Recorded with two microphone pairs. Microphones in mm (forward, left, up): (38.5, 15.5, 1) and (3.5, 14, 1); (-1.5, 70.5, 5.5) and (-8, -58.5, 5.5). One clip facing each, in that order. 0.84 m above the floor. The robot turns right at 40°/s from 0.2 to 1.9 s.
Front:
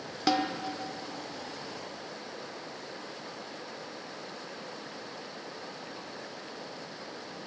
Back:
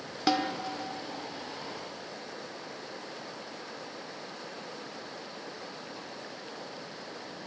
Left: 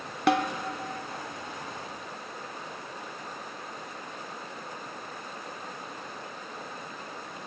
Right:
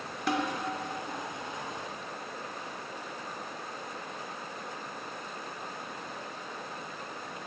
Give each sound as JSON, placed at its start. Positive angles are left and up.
{"t": 0.3, "sound": "a snare drum", "azimuth_deg": 95, "distance_m": 0.7}